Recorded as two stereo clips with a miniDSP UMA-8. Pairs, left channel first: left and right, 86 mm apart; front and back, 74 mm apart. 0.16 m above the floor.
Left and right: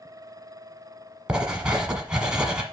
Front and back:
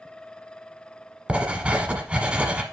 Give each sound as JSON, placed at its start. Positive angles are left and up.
{"t": 1.3, "sound": "writing", "azimuth_deg": -145, "distance_m": 1.2}